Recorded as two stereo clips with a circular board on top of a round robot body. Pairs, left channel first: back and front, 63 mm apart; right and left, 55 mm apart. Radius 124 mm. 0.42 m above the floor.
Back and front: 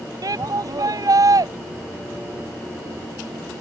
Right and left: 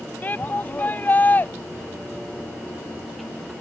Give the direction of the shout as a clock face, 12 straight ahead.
1 o'clock.